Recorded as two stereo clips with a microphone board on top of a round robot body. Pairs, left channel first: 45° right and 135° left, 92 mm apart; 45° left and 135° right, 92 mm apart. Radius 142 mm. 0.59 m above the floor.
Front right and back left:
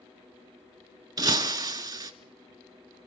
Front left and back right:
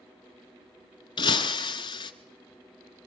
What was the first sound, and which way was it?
Breaking glass, 85° left.